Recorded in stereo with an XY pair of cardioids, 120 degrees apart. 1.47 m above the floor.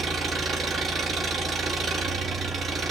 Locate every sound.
0.0 s an engine running: 40° right, 2.5 m